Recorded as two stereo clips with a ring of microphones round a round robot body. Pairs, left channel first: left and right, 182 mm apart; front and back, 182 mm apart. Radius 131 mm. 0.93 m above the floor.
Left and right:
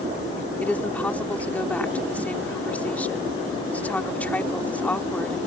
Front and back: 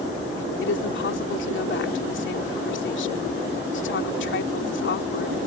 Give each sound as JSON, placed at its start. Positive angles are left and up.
{"t": 0.6, "sound": "a woman speaking", "azimuth_deg": 10}